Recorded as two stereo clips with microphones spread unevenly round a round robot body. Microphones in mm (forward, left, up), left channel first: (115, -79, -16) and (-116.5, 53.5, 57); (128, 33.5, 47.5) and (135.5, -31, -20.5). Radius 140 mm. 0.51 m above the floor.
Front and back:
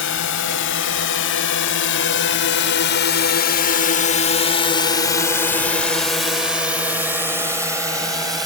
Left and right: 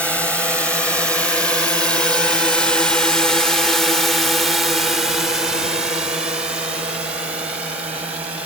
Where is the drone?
Straight ahead; by 8.5 s 130° right.